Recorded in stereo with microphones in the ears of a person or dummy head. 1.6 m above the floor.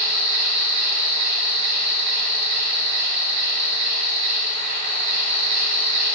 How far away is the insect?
About 1.1 m.